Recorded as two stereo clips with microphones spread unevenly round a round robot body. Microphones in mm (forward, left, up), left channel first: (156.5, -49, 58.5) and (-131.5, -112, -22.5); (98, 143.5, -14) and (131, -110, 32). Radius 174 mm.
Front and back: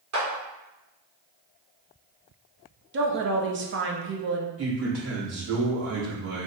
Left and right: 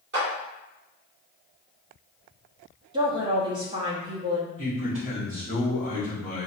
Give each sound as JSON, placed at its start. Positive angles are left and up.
{"t": 0.1, "sound": "a clap", "azimuth_deg": -145, "distance_m": 1.9}
{"t": 2.9, "sound": "a woman speaking", "azimuth_deg": -160, "distance_m": 0.7}
{"t": 4.6, "sound": "a man speaking", "azimuth_deg": -140, "distance_m": 1.8}